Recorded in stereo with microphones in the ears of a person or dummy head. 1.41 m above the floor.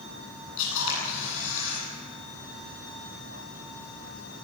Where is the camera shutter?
75° left (ahead or behind), 10 m.